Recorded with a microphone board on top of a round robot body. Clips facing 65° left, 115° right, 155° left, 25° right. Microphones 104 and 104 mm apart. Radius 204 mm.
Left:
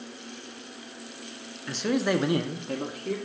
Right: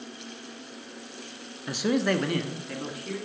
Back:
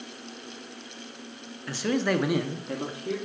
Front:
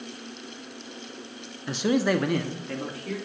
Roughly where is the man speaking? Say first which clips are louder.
Even, front 3 dB; ahead right.